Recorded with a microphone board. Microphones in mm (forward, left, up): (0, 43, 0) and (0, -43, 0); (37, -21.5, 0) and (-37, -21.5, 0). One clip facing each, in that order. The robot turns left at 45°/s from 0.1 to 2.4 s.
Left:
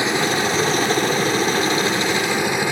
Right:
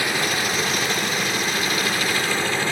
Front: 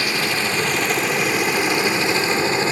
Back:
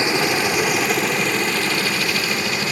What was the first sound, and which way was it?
A helicopter, 135° left.